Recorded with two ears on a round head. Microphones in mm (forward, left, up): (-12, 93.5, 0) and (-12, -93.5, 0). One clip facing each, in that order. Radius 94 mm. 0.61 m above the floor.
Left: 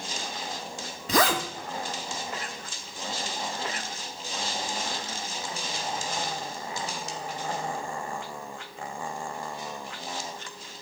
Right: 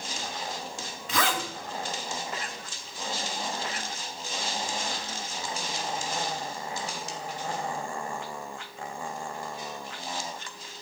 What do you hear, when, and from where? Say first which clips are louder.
1.1 s a zipper: left 5 dB; 35° left (ahead or behind), 1.0 m